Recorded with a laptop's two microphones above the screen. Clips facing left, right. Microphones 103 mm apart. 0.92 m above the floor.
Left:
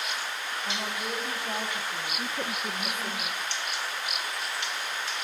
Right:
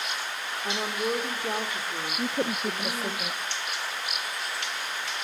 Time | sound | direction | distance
0.6 | a woman speaking | 50° right (ahead or behind) | 3.5 m
2.2 | a woman speaking | 35° right (ahead or behind) | 0.6 m